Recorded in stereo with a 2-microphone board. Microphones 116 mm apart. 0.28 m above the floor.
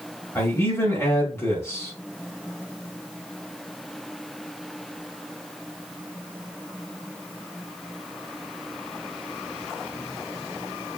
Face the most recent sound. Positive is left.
turn(degrees=25)  # may be behind; listen again after turning